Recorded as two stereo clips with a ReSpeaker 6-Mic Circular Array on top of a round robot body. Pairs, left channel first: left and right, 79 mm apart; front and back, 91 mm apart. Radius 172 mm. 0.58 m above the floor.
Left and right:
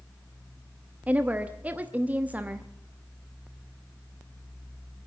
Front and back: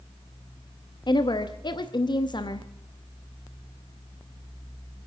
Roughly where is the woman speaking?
Ahead.